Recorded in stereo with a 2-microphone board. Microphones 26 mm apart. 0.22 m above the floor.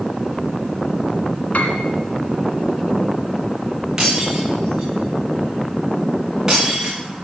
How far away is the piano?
About 2 m.